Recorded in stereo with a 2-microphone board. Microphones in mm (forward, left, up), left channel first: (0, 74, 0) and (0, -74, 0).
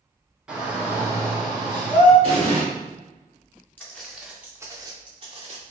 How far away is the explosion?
About 2.0 m.